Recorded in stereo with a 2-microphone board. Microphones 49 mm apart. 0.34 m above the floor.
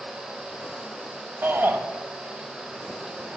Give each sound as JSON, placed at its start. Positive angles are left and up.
{"t": 1.4, "sound": "a shout", "side_deg": -45, "distance_m": 1.2}